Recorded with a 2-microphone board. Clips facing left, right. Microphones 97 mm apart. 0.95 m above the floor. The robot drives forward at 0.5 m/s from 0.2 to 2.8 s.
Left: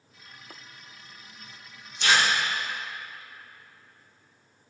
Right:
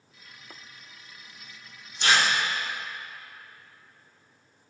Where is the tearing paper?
40° right (ahead or behind), 2.5 m; by 2.2 s 45° right (ahead or behind), 2.5 m.